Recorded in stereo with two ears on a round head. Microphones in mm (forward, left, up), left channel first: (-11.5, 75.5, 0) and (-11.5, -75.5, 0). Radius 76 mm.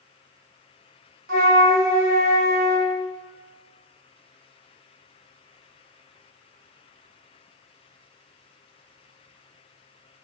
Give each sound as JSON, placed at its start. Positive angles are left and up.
{"t": 1.3, "sound": "a flute", "side_deg": -60, "distance_m": 1.0}